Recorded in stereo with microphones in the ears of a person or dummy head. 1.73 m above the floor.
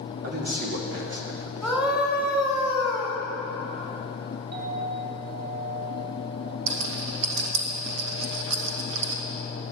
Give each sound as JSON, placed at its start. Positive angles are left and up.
{"t": 0.2, "sound": "a man speaking", "side_deg": -55, "distance_m": 2.5}
{"t": 1.6, "sound": "a scream", "side_deg": -5, "distance_m": 3.5}
{"t": 4.5, "sound": "a clink", "side_deg": -50, "distance_m": 3.0}
{"t": 6.7, "sound": "a rattle", "side_deg": -80, "distance_m": 1.7}